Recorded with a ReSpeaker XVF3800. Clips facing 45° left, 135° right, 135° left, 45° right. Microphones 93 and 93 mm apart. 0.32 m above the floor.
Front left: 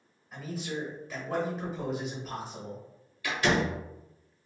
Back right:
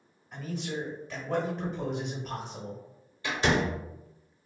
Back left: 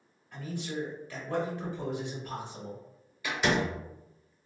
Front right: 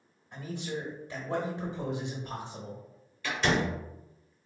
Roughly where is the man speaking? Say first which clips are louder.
Back right 1 dB, even; ahead right.